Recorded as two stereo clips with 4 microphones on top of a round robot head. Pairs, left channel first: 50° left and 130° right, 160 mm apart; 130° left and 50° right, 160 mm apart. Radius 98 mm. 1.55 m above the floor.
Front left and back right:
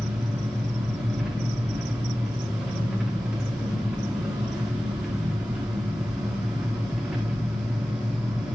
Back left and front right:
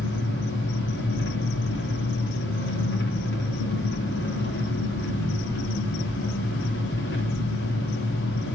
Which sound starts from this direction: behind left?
An engine running, at 0.0 s.